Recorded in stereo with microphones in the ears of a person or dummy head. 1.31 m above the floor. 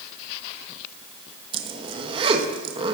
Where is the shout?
No shout in this recording.